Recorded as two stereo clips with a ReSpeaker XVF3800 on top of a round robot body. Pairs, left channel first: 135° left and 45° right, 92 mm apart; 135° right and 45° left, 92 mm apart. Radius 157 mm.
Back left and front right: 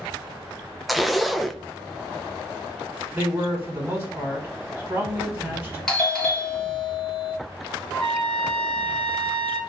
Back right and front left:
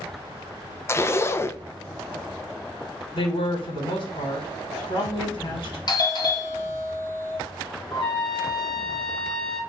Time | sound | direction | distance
0.9 | a zipper | 135° right | 0.6 m
3.1 | a man speaking | 115° right | 1.8 m
5.9 | a doorbell | 145° right | 1.7 m
7.9 | a trumpet | 140° right | 1.8 m